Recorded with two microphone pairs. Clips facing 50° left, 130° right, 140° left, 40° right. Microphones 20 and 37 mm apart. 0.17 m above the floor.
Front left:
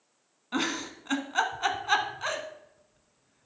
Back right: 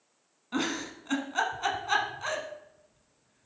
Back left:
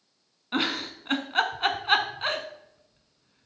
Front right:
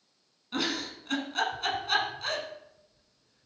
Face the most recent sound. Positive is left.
turn(degrees=115)